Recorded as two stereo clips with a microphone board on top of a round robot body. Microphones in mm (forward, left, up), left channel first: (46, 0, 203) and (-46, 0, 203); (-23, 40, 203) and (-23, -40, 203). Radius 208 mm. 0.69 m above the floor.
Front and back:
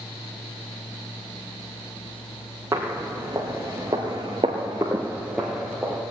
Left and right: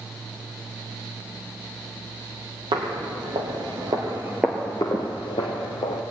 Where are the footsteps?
110° right, 1.5 m; by 6.0 s 90° left, 1.3 m.